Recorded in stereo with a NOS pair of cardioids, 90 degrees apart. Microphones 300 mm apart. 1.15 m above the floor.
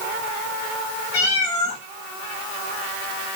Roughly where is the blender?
I don't hear a blender.